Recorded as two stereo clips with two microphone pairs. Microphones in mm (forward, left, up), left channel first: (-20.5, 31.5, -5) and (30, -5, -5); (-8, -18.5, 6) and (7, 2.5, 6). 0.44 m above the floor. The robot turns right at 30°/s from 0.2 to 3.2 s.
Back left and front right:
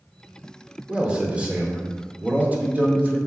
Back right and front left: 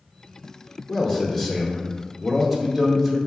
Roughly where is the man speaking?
Right.